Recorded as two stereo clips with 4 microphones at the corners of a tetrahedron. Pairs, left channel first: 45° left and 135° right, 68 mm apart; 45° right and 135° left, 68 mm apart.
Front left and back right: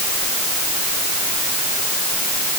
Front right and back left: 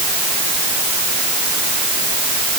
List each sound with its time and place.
Only background noise.